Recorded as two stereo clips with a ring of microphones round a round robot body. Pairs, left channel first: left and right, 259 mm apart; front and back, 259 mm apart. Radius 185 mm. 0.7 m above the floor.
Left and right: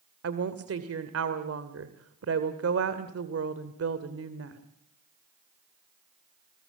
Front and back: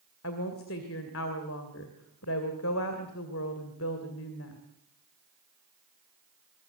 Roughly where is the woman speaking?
Ahead right.